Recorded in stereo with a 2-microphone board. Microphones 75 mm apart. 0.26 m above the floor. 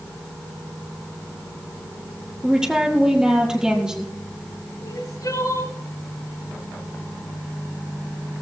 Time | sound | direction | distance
2.4 | a woman speaking | 10° right (ahead or behind) | 5 m
4.8 | crying | 65° left (ahead or behind) | 3 m